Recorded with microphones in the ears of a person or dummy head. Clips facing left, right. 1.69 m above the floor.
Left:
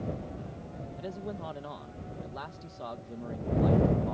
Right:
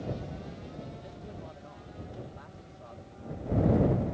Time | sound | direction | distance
1.0 | a man speaking | 85° left | ?